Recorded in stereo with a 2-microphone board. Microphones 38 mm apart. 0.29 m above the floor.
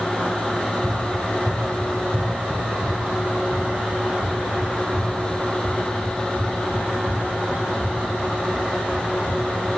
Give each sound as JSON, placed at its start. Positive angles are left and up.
{"t": 0.5, "sound": "running footsteps", "side_deg": 10, "distance_m": 0.9}